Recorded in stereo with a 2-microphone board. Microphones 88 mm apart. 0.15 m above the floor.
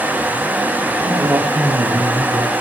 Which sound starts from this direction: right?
A man speaking, at 1.0 s.